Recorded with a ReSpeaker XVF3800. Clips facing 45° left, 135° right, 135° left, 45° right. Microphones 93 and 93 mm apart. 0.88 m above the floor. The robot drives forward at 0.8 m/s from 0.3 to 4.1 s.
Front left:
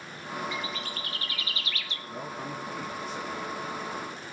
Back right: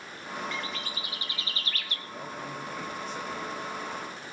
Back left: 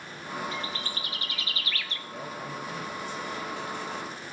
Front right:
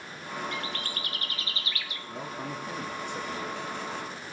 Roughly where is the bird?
Ahead right.